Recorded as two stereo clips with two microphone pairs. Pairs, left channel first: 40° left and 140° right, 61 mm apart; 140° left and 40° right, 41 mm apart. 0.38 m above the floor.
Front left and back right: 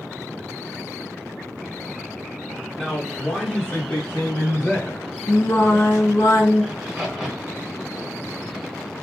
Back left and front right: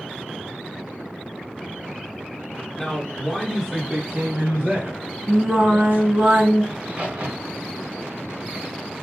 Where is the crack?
50° right, 1.5 m.